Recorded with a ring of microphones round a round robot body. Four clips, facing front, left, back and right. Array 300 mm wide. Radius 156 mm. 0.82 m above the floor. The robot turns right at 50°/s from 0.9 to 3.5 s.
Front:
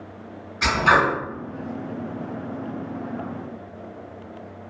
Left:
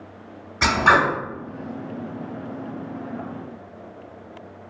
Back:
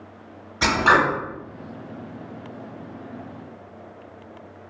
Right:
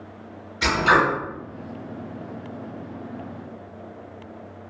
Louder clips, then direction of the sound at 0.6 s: Left 2 dB, back 1 dB; 135° left.